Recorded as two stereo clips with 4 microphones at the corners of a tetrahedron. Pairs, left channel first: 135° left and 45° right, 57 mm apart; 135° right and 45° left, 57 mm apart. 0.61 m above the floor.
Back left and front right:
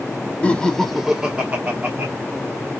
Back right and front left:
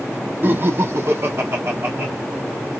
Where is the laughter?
80° left, 0.8 m; by 2.1 s straight ahead, 1.2 m.